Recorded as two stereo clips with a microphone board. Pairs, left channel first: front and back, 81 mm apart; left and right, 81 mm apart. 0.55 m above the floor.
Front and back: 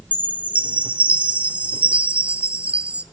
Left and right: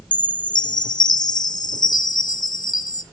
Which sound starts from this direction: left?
A chime, at 0.1 s.